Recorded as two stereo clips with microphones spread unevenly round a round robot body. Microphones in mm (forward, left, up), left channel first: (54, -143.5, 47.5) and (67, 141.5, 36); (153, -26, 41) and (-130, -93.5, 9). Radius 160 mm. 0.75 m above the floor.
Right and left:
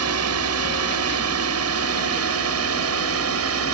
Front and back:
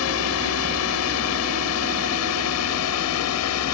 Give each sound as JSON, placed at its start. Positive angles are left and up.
{"t": 0.0, "sound": "a drone", "azimuth_deg": 60}